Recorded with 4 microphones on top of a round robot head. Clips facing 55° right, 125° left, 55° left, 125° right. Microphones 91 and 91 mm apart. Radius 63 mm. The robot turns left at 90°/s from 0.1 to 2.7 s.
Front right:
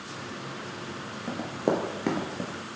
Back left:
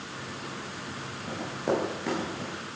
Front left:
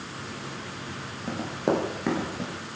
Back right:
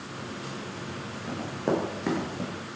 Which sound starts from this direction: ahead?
Running footsteps, at 1.3 s.